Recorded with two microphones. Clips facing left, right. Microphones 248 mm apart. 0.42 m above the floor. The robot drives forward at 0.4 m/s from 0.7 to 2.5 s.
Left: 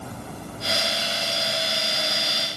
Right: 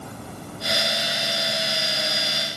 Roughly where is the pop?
No pop in this recording.